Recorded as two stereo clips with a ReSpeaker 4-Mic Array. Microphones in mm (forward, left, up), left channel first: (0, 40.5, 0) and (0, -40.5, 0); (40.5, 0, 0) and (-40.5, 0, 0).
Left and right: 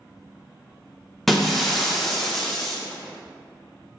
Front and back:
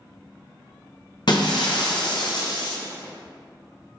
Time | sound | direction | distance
1.3 | breaking glass | 5° left | 0.7 m